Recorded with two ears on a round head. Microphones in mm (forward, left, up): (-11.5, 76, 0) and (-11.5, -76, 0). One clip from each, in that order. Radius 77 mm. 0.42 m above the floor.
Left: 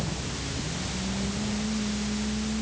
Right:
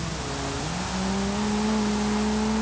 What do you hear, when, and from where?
Only background noise.